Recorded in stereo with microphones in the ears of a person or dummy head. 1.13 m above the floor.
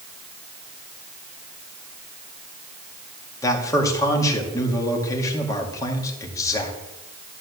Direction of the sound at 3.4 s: 20° left (ahead or behind).